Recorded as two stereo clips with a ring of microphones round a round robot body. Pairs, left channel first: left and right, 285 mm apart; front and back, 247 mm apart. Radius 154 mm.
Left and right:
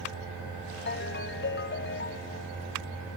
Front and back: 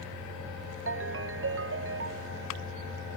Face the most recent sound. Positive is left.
turn(degrees=145)